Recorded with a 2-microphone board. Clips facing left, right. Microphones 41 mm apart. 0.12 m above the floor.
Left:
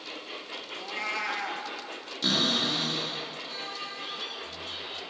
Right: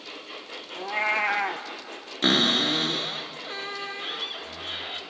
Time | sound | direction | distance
0.8 | a cat meowing | 35° right (ahead or behind) | 0.6 m
2.2 | a cupboard door | 45° right (ahead or behind) | 1.3 m